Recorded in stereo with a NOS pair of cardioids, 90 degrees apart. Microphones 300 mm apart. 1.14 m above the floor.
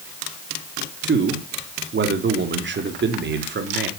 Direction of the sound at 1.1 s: 40° right.